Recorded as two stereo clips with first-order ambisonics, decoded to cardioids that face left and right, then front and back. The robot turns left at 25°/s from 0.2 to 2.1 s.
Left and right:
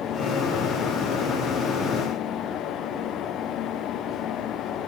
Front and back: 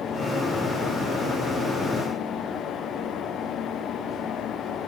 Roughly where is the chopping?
No chopping in this recording.